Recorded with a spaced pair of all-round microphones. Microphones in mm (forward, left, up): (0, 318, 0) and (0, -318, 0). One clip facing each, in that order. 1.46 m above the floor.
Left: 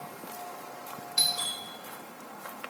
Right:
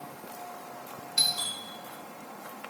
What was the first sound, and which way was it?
A doorbell, 10° right (ahead or behind).